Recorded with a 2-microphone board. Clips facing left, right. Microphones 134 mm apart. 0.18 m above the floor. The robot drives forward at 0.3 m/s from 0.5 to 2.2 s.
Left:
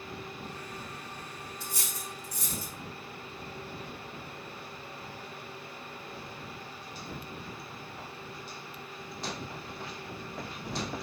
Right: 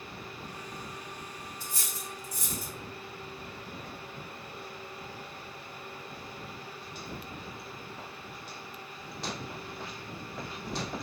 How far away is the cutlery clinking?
About 1.9 m.